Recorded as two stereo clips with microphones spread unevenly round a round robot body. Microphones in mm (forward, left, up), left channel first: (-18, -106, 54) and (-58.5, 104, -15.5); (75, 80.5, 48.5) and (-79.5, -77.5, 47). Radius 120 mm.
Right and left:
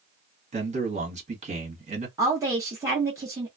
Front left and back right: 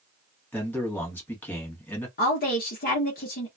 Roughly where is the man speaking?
Behind left.